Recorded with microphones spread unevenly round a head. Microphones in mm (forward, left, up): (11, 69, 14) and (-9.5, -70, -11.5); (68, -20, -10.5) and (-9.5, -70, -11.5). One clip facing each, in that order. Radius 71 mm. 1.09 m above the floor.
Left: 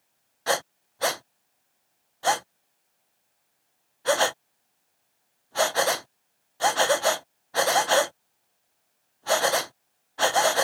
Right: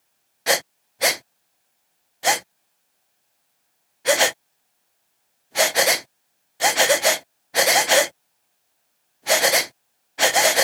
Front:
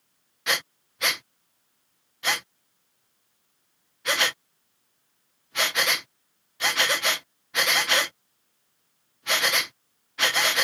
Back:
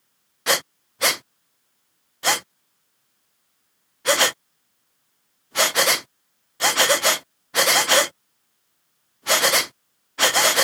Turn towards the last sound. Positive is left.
turn(degrees=-135)